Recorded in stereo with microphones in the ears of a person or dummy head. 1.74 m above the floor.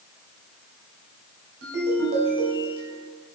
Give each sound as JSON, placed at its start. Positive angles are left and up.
{"t": 1.6, "sound": "a ringtone", "side_deg": -75, "distance_m": 4.5}